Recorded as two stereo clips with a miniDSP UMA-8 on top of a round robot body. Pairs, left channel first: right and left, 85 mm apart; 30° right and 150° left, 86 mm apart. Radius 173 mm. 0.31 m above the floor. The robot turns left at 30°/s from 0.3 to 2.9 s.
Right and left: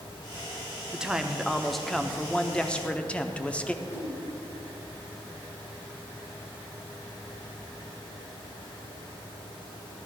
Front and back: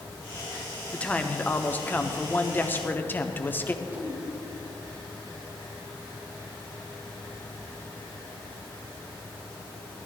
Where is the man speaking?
20° left, 1.0 m; by 3.7 s 35° right, 1.0 m.